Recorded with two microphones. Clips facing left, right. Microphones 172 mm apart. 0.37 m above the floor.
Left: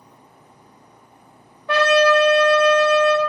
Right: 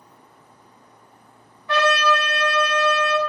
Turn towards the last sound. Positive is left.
turn(degrees=65)  # may be behind; listen again after turning